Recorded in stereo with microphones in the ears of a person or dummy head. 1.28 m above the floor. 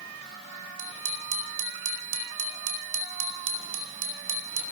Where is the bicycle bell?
75° right (ahead or behind), 3.5 m.